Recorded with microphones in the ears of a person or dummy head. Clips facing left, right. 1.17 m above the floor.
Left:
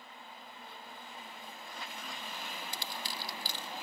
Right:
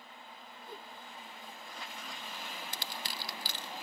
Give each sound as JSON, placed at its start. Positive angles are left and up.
{"t": 0.7, "sound": "a whoosh", "side_deg": -40}
{"t": 2.7, "sound": "crushing", "side_deg": -50}